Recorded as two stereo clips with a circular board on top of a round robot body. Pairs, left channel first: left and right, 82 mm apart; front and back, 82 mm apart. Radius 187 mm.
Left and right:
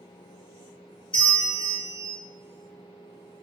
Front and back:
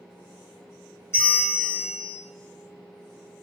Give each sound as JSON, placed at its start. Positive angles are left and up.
{"t": 1.1, "sound": "a bell", "azimuth_deg": 60, "distance_m": 1.6}